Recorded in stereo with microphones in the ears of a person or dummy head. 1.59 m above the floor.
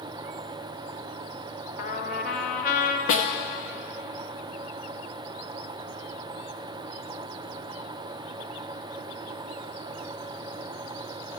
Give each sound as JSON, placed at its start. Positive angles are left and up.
{"t": 1.8, "sound": "a trumpet", "side_deg": 65, "distance_m": 0.7}
{"t": 3.1, "sound": "a snare drum", "side_deg": 45, "distance_m": 0.6}